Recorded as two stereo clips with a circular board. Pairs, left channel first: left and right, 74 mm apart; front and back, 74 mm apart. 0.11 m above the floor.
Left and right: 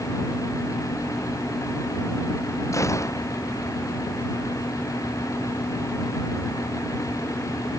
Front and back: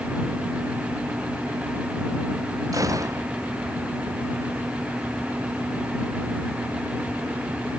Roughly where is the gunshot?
Behind left.